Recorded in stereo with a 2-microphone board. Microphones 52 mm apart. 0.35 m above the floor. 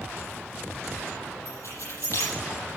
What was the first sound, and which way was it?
Keys jangling, 80° left.